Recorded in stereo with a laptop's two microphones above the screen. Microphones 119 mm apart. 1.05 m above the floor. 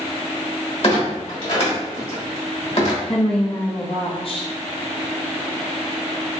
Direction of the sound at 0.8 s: 50° left (ahead or behind).